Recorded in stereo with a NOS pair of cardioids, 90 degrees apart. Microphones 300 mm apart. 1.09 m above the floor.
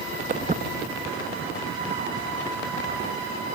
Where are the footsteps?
25° right.